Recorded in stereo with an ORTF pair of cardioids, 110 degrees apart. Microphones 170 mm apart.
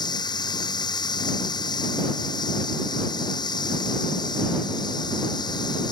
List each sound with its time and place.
0.0 s running water: 25° left